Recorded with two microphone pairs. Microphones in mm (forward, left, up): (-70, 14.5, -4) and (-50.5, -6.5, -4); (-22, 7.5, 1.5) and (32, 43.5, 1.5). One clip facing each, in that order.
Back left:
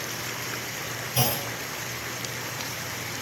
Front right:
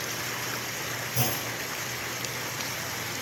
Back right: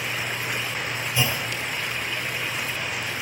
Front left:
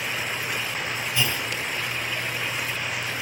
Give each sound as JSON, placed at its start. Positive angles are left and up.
{"t": 1.1, "sound": "a clunk", "azimuth_deg": 140, "distance_m": 2.5}